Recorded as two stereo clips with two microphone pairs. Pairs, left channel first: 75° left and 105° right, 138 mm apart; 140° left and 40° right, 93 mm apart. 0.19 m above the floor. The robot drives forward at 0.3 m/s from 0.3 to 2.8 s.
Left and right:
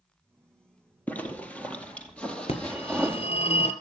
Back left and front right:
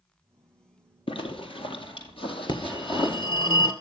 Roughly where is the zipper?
Behind left.